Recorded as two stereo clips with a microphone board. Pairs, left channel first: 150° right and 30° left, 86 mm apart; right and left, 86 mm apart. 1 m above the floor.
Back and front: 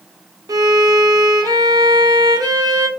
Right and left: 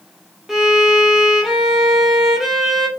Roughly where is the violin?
Ahead.